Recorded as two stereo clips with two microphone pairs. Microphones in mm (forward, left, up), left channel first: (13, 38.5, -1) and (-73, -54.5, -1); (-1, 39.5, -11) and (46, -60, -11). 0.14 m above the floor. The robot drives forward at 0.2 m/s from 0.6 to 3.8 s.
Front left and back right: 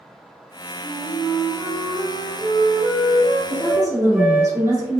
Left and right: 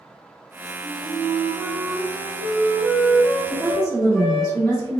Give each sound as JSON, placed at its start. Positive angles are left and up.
{"t": 0.8, "sound": "a flute", "azimuth_deg": 125, "distance_m": 1.3}
{"t": 3.5, "sound": "a woman speaking", "azimuth_deg": 165, "distance_m": 2.0}